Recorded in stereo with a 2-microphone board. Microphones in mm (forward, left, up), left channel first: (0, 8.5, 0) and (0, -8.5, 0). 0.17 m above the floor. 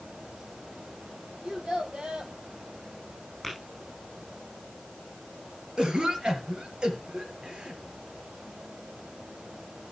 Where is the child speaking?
70° right (ahead or behind), 3 m.